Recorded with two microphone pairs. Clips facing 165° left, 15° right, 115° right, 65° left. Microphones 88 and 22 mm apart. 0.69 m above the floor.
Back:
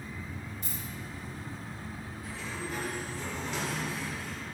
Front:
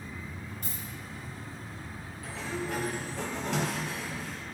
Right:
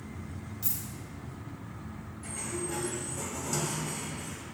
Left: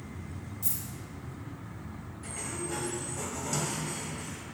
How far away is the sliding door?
About 1.0 m.